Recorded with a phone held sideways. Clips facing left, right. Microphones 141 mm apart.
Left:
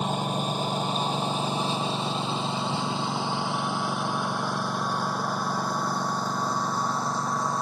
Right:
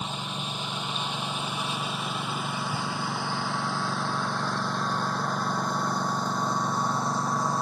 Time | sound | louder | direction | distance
0.0 | a lawn mower | left 7 dB | 45° left (ahead or behind) | ?